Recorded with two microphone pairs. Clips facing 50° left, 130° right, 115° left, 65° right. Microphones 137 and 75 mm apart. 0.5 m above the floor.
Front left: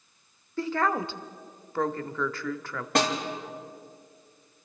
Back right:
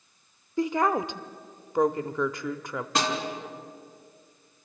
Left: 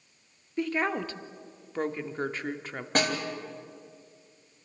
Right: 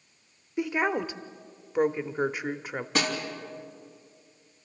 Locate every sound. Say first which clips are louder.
0.6 s a woman speaking: back right 2 dB, right 2 dB; 100° right, 0.7 m
3.0 s a snare drum: front left 3 dB, left 2 dB; 80° left, 3 m